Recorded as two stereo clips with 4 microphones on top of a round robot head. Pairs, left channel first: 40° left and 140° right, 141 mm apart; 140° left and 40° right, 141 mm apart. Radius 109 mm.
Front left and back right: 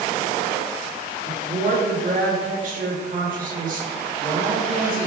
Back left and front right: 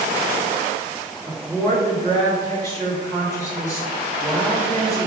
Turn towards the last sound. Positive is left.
turn(degrees=-155)